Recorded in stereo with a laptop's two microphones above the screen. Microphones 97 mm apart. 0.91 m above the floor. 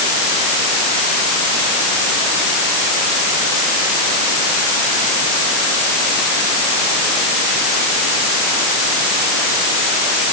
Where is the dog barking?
I don't hear a dog barking.